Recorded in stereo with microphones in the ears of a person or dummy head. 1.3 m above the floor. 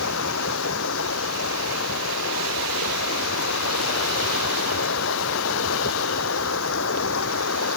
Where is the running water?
70° left (ahead or behind).